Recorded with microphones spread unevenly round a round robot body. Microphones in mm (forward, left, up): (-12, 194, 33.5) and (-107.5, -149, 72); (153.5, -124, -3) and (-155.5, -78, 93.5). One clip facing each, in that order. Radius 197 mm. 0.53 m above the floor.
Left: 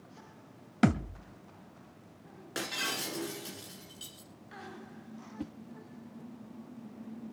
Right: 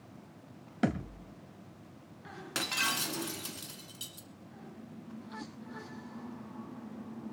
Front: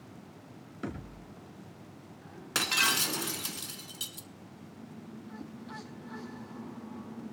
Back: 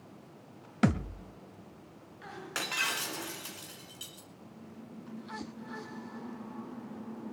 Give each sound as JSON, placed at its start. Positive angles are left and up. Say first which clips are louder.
{"t": 0.8, "sound": "a thud", "louder": "left 4 dB, back 11 dB", "azimuth_deg": 140, "distance_m": 1.2}
{"t": 2.5, "sound": "breaking glass", "louder": "left 2 dB, front 8 dB", "azimuth_deg": -40, "distance_m": 1.6}
{"t": 5.4, "sound": "a whoosh", "louder": "left 10 dB, back 2 dB", "azimuth_deg": 95, "distance_m": 0.7}